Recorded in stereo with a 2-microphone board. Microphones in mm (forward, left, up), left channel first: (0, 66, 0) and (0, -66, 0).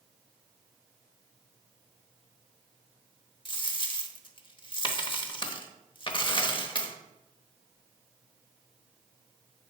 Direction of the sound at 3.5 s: 35° left (ahead or behind).